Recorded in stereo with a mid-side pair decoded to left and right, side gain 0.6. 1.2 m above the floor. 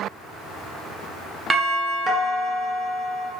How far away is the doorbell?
About 1.1 m.